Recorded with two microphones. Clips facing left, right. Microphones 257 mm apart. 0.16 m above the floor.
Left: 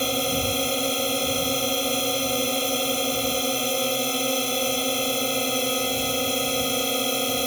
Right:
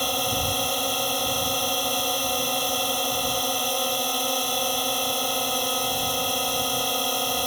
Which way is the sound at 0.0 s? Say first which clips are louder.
Left 4 dB; 25° left (ahead or behind).